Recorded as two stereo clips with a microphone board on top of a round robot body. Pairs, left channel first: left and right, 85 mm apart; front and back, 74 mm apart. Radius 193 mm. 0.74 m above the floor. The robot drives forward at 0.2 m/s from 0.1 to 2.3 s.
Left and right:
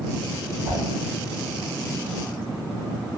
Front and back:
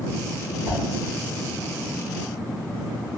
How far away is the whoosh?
About 1.6 m.